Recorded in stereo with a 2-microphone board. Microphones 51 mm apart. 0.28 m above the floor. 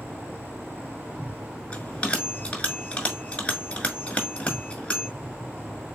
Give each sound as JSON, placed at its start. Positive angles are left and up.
{"t": 0.0, "sound": "an insect", "side_deg": -40, "distance_m": 0.7}
{"t": 1.7, "sound": "a bell", "side_deg": 25, "distance_m": 1.5}